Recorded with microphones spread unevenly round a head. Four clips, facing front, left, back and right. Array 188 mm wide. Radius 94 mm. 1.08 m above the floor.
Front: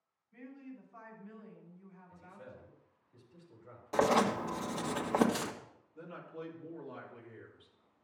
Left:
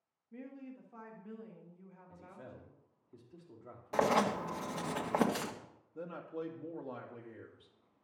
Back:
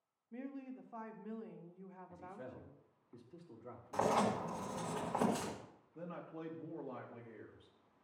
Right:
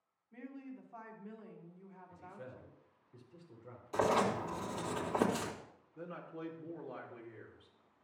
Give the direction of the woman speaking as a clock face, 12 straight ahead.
7 o'clock.